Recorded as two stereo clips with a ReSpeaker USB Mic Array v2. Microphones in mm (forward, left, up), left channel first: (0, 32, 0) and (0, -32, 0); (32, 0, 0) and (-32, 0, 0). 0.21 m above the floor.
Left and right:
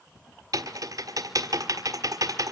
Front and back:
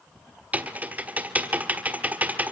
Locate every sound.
0.5 s typing on a keyboard: 115° right, 1.4 m